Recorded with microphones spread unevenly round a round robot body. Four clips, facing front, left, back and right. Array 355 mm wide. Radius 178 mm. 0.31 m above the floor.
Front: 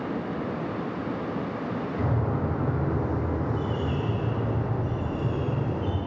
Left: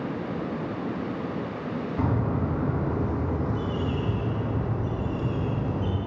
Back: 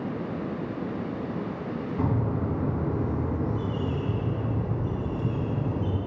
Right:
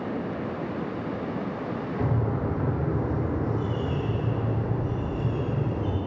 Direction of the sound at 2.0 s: 110° left.